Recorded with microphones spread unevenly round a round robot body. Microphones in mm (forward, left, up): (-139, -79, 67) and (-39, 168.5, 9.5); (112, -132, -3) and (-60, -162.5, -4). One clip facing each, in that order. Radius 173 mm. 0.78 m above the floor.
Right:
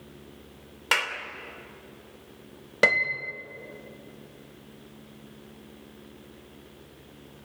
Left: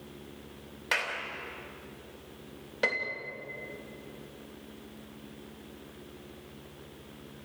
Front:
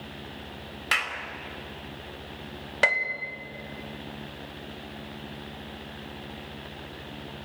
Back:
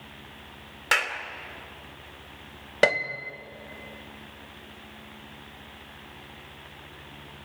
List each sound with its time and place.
0.9 s a clap: 130° right, 3 m
2.8 s a piano: 120° right, 1.5 m